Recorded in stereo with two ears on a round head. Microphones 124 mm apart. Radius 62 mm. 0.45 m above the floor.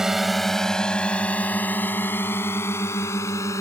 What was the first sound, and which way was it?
A drone, 5° right (ahead or behind).